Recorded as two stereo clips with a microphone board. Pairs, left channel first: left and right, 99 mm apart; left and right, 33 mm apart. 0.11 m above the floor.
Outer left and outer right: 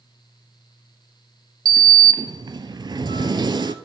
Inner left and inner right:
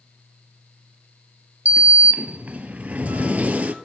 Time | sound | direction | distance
1.6 | a sliding door | 50° right (ahead or behind) | 0.6 m